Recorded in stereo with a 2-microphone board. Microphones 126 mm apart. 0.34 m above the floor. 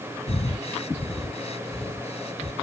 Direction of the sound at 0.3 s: 60° left (ahead or behind).